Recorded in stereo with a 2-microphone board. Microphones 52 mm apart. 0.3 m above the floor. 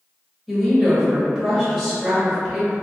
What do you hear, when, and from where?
0.5 s a woman speaking: 5° right (ahead or behind), 0.9 m